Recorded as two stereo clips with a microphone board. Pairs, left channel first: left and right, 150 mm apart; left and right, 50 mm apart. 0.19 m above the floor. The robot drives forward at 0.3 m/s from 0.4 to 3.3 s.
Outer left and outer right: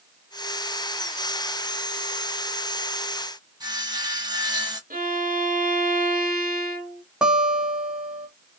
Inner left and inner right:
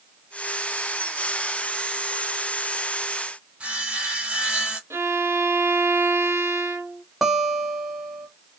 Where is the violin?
70° right (ahead or behind), 0.9 m.